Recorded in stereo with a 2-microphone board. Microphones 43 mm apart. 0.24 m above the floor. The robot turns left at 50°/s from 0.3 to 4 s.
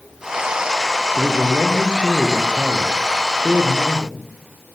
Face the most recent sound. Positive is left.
turn(degrees=-135)